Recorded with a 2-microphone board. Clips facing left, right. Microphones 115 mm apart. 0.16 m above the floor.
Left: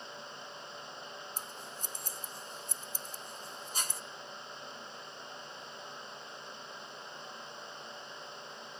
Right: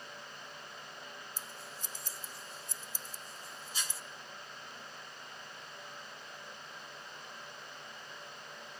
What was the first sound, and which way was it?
Scissors, 40° left (ahead or behind).